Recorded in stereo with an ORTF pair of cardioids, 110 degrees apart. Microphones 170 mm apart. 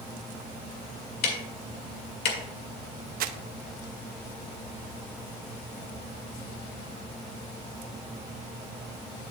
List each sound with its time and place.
1.2 s ticking: 70° left, 1.9 m
3.2 s crumpling: 55° right, 0.7 m